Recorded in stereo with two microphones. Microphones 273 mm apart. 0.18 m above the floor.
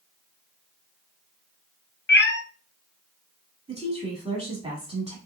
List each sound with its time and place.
2.1 s a cat meowing: 45° left (ahead or behind), 0.5 m
3.7 s a woman speaking: 20° right (ahead or behind), 1.3 m